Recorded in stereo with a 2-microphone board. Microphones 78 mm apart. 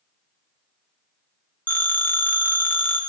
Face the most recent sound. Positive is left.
turn(degrees=25)  # may be behind; listen again after turning